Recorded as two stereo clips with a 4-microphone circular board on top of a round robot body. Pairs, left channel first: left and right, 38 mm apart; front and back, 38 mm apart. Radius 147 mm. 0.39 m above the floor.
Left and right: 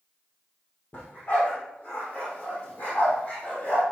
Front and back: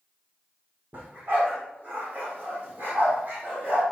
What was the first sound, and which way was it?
A dog barking, 135° left.